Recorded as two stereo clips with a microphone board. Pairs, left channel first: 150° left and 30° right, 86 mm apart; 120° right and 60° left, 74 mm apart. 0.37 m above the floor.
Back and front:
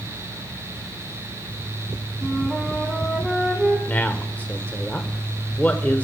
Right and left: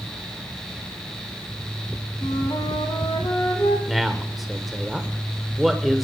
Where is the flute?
125° right, 1.7 m.